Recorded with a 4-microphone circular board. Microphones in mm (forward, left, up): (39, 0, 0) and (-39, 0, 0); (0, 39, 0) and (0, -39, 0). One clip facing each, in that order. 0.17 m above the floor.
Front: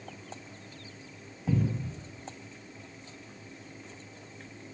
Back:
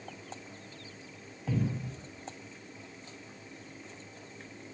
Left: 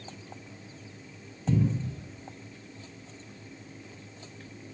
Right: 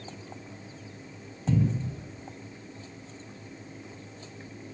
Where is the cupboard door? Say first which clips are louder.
Front 3 dB, even; 15° right, 1.7 m.